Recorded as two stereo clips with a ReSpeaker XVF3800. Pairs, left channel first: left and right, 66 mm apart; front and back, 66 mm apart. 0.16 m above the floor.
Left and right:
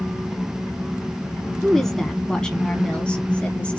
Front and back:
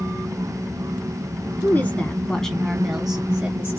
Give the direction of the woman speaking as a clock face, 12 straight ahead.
12 o'clock.